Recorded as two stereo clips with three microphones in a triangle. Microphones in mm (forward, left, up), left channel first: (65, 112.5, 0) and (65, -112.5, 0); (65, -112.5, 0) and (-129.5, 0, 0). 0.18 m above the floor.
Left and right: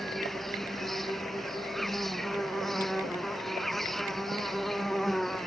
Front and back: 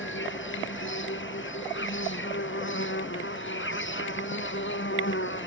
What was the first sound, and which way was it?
An insect, straight ahead.